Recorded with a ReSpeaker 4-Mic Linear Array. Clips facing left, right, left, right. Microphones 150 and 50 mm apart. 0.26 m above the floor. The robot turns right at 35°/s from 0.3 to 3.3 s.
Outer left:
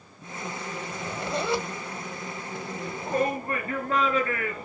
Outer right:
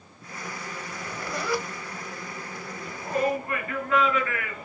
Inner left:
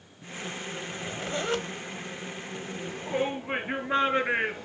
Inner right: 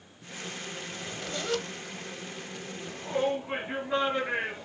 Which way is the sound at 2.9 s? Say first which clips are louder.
Outer right 1 dB, inner right 1 dB; 50° left (ahead or behind).